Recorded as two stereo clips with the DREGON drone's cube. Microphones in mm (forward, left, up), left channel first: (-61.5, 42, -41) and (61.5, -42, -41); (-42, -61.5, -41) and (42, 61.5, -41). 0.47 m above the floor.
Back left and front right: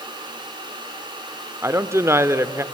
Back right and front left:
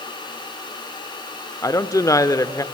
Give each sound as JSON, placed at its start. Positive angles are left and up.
{"t": 1.6, "sound": "a woman speaking", "azimuth_deg": -85, "distance_m": 0.8}